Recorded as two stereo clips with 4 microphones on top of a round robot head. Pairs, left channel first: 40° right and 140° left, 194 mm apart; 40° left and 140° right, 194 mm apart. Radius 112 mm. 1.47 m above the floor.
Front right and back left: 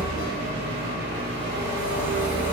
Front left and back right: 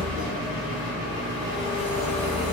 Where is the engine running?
170° left, 1.8 m.